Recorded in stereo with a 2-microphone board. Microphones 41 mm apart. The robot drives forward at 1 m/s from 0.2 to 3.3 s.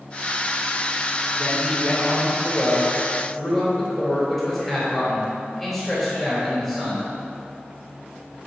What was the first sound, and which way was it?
A man speaking, 10° left (ahead or behind).